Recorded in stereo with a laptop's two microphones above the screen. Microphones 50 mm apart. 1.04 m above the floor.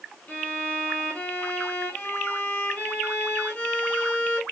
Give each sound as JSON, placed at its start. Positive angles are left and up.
{"t": 0.3, "sound": "a violin", "side_deg": 35, "distance_m": 0.9}